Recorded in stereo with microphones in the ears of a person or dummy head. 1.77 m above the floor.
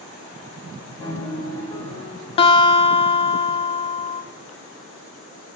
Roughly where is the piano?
Centre.